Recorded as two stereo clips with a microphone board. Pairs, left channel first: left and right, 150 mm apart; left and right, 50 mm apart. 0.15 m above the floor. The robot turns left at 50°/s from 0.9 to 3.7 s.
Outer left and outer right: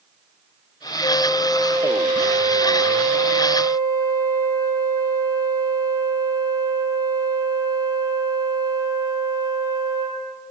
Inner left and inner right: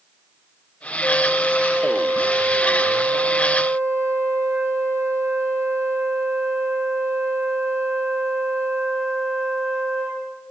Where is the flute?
35° left, 6 m; by 10.2 s 100° right, 6 m.